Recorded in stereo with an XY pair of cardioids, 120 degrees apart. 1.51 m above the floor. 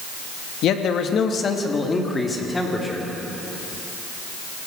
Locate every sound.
0.6 s a man speaking: 65° left, 2 m; by 3.1 s 10° left, 4 m